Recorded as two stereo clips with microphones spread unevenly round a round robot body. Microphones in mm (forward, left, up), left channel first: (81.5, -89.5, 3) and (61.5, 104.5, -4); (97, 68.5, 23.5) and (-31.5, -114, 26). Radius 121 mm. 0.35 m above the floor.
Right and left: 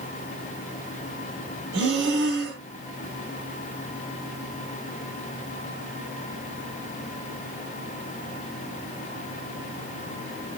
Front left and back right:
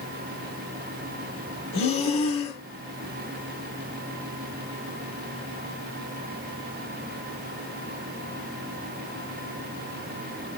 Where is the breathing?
70° left, 1.4 m.